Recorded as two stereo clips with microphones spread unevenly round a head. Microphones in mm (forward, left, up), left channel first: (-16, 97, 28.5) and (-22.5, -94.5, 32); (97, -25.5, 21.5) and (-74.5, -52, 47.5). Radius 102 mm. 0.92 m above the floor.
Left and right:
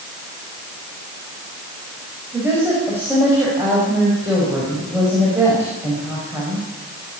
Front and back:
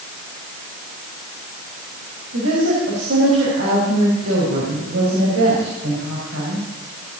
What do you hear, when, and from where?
2.3 s a woman speaking: 170° right, 5.5 m